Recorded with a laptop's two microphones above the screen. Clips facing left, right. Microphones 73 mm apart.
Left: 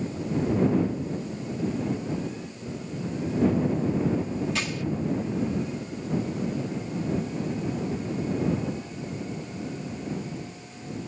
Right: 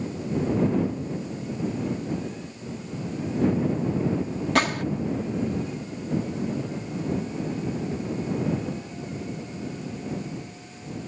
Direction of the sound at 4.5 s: 60° right (ahead or behind).